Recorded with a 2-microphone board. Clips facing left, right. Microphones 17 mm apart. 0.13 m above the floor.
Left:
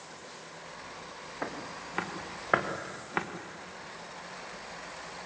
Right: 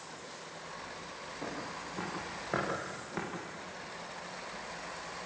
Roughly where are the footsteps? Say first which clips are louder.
Left 3 dB; left.